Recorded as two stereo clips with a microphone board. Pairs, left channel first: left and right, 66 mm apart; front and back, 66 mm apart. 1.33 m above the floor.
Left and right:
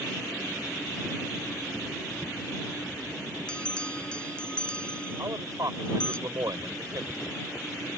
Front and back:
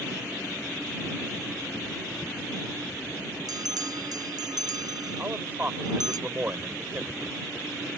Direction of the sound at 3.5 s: 165° left.